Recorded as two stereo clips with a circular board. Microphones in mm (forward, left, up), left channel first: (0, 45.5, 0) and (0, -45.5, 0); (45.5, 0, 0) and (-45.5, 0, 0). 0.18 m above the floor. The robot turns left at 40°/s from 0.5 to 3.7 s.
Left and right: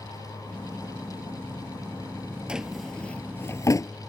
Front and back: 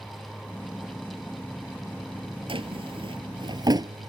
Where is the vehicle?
55° right; by 4.1 s 175° left.